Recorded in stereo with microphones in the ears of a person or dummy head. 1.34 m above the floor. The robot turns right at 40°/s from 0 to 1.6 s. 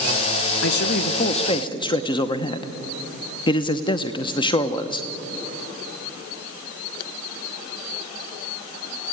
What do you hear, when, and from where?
0.6 s a man speaking: 125° left, 0.8 m; by 5.1 s 160° left, 0.8 m